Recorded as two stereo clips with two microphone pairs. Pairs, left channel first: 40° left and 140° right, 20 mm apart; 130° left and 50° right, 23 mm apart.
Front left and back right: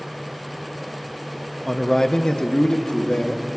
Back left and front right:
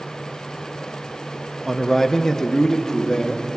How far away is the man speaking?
About 0.5 m.